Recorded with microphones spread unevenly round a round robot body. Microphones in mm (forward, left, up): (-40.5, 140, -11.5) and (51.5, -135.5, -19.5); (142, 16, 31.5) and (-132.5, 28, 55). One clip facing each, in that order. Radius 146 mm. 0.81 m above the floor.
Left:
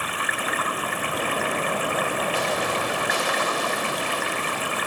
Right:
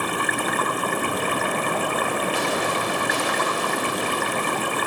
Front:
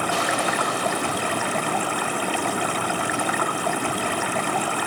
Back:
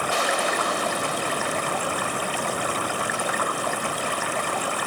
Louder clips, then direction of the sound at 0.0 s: Right 6 dB, front 1 dB; 25° right.